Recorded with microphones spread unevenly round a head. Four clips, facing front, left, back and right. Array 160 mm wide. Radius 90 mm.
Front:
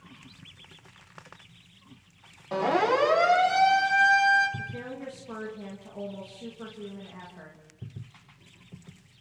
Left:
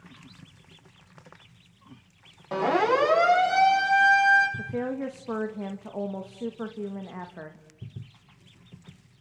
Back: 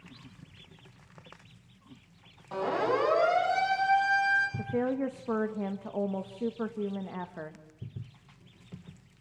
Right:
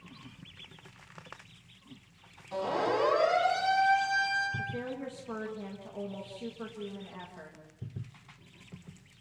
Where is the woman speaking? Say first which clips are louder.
Left 7 dB, back 8 dB; 145° left, 1.3 m.